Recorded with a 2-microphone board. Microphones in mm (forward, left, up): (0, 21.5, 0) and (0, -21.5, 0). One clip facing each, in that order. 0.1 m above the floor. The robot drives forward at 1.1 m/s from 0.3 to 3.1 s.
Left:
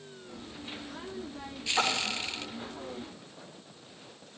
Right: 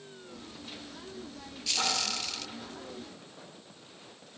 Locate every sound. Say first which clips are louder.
1.8 s a splash: left 3 dB; 60° left (ahead or behind), 2 m; by 2.2 s 75° left (ahead or behind), 2.0 m